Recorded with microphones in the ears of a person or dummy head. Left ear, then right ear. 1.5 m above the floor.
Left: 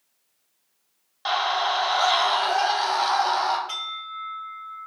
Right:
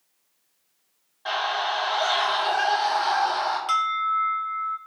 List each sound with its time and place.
1.2 s a scream: 75° left (ahead or behind), 1.2 m
3.7 s an alarm: 55° right (ahead or behind), 0.9 m